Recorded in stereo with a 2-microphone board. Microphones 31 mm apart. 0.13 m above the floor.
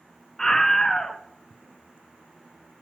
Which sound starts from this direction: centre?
A scream, at 0.4 s.